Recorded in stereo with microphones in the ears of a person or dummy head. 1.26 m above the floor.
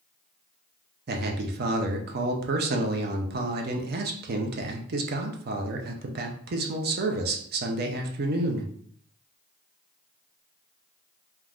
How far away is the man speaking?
About 0.5 m.